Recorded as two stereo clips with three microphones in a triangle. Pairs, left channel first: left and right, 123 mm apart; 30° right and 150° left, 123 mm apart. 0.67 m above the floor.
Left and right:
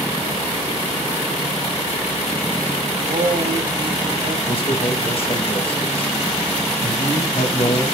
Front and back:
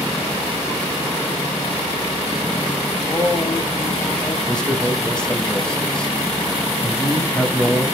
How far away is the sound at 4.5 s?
About 4 m.